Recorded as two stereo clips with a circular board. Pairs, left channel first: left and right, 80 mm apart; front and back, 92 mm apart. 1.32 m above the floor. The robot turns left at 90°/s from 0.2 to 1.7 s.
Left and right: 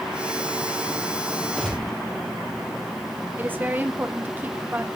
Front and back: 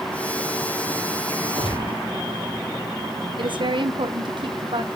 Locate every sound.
1.6 s a gunshot: 15° left, 4 m; by 2.0 s 5° left, 4 m
3.4 s a woman speaking: 155° right, 0.9 m